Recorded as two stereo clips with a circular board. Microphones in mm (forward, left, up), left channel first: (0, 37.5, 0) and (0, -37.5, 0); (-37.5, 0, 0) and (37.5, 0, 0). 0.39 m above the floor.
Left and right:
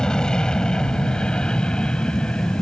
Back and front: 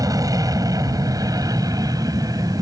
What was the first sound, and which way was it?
An aircraft, 15° left.